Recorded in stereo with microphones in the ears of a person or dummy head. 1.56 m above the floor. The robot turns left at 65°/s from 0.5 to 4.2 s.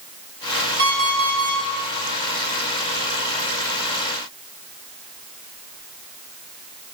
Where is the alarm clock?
65° right, 2.5 m; by 1.6 s 120° right, 2.5 m.